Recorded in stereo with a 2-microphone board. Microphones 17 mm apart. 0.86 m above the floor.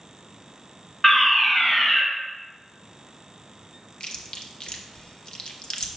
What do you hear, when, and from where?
1.0 s a fire alarm: 20° left (ahead or behind), 1.3 m
4.0 s chewing: 55° left (ahead or behind), 0.7 m